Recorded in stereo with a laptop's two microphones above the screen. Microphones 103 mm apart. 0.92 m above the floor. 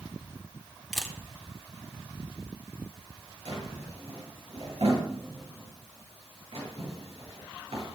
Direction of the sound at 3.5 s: 65° right (ahead or behind).